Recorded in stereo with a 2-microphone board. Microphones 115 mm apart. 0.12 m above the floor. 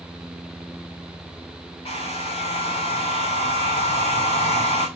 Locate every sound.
1.9 s a hair dryer: 60° left (ahead or behind), 7.5 m